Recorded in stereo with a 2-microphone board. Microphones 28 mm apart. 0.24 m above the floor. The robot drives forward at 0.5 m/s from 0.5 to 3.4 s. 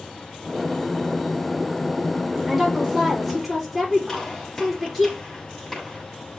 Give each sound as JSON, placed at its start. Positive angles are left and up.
{"t": 2.5, "sound": "a woman speaking", "side_deg": 0, "distance_m": 5.5}
{"t": 4.1, "sound": "a gunshot", "side_deg": 10, "distance_m": 6.5}